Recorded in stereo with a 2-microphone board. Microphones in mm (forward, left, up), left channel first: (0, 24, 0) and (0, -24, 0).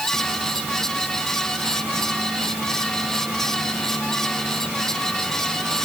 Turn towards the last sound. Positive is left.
No sound to turn to.